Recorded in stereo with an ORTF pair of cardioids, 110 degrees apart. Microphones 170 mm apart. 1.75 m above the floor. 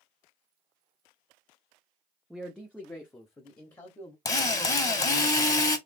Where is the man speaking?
Straight ahead, 0.7 m; by 4.2 s 20° left, 1.5 m.